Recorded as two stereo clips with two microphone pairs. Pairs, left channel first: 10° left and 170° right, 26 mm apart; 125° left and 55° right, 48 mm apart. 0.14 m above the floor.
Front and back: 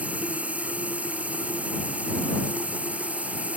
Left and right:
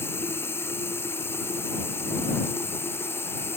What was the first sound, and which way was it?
Running water, 160° left.